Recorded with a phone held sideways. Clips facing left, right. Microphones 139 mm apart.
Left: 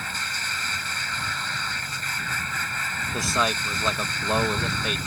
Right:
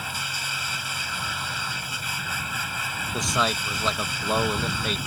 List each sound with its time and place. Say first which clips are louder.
0.0 s a machine running: even; 10° right (ahead or behind)
3.1 s a man speaking: even; centre (ahead or behind)